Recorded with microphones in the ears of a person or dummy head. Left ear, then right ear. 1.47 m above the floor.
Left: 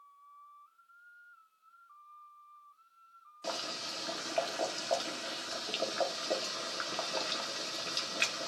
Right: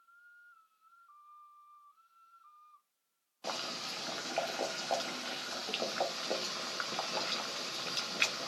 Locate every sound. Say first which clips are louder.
3.4 s boiling: left 1 dB; 15° right (ahead or behind), 0.9 m